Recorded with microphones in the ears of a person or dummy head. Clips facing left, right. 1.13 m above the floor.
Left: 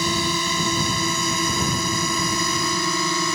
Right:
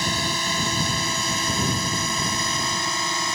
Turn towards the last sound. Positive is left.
turn(degrees=75)  # may be behind; listen again after turning